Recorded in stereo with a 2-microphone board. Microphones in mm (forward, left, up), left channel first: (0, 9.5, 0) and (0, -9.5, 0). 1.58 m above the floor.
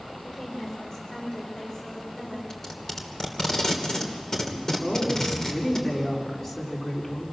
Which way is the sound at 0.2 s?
30° left (ahead or behind).